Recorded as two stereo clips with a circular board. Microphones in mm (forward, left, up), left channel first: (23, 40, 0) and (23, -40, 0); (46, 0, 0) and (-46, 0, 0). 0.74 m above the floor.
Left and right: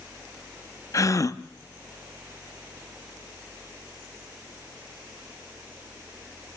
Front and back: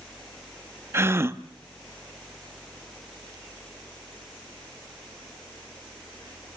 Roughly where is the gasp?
Behind left.